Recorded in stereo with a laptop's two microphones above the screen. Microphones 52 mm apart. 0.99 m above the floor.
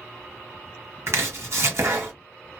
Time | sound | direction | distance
1.1 | chopping | 60° right (ahead or behind) | 1.2 m